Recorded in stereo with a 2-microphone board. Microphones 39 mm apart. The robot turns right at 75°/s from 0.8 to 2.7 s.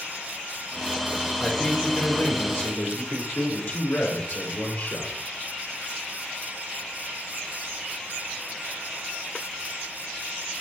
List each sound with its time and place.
1.4 s a man speaking: 5° right, 4 m; by 5.2 s 95° left, 4 m